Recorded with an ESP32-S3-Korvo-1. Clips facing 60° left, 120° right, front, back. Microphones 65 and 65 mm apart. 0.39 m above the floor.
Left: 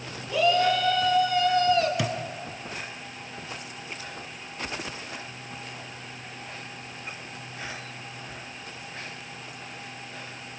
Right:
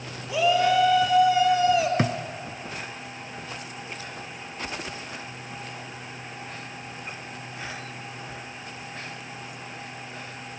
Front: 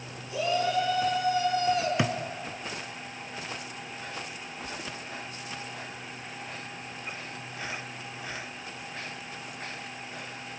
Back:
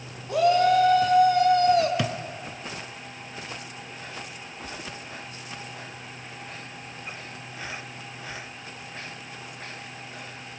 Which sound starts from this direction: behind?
A shout, at 0.3 s.